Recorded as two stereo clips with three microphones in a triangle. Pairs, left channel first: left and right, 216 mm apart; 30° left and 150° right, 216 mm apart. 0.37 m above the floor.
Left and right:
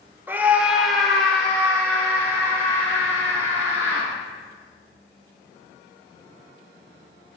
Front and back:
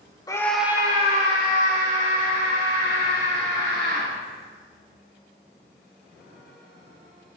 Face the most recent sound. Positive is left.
turn(degrees=170)